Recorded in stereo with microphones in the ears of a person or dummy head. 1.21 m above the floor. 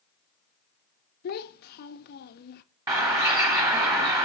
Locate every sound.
1.2 s a child speaking: 45° left (ahead or behind), 0.5 m
2.9 s a bird: 15° right (ahead or behind), 1.0 m